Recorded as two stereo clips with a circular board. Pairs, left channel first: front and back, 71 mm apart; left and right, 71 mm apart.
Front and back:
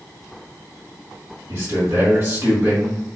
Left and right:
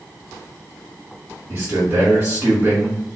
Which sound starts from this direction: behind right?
A man speaking, at 1.5 s.